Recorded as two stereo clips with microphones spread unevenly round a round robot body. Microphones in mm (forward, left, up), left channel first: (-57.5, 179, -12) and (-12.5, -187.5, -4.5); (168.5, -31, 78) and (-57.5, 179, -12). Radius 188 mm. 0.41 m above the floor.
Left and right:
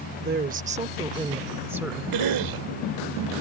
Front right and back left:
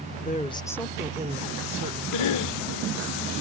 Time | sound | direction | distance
0.2 | a woman speaking | 110° right | ?
2.1 | a cough | 75° right | ?